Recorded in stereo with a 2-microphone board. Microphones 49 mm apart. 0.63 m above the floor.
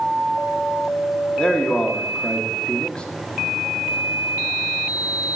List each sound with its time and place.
1.4 s a man speaking: 20° left (ahead or behind), 1.0 m